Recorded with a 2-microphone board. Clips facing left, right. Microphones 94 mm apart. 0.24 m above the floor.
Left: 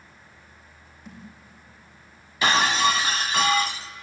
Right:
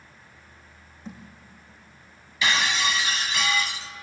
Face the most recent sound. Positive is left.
turn(degrees=45)  # may be behind; listen again after turning